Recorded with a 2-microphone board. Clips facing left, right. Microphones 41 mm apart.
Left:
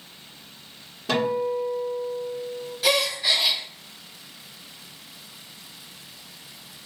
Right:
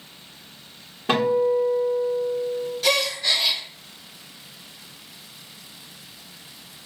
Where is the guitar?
35° right (ahead or behind), 1.4 m.